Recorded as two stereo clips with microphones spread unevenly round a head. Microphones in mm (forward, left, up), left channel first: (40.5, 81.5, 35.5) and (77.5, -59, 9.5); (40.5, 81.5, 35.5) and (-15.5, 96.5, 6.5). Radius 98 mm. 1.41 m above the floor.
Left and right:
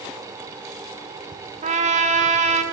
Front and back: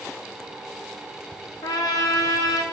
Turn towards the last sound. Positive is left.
turn(degrees=-40)